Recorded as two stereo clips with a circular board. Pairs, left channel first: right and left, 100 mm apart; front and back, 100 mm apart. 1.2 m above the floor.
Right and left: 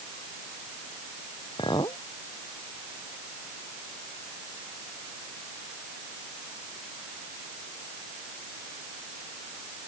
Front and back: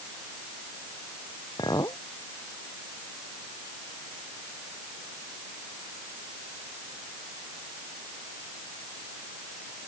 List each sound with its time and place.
1.6 s a clink: 50° right